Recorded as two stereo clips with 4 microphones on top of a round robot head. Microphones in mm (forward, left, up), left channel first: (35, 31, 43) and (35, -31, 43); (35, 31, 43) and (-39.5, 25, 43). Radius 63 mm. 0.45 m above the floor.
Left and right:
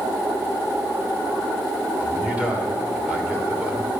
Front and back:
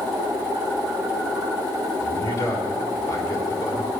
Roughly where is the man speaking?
Ahead right.